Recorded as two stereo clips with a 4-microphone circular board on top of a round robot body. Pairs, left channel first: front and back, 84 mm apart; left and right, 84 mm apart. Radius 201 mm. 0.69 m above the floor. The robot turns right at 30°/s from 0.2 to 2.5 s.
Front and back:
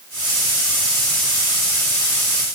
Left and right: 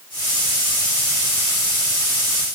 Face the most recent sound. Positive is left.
No sound to turn to.